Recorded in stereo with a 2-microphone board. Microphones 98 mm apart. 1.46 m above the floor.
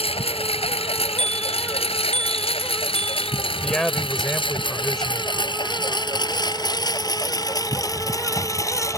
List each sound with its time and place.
0.0 s a lawn mower: 80° left; by 9.0 s 30° left (ahead or behind)
1.2 s a bicycle bell: 60° right (ahead or behind)
3.6 s a man speaking: 5° left (ahead or behind)